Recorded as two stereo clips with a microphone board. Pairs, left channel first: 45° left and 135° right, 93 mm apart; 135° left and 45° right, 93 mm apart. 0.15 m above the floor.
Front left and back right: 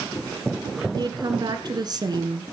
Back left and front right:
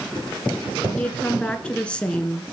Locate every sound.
1.0 s a woman speaking: 150° right, 1.6 m